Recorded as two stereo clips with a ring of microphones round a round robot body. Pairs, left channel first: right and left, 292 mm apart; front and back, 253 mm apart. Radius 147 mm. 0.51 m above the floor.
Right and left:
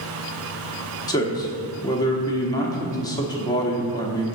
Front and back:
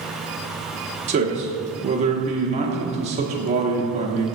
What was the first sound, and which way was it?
A man speaking, 155° right.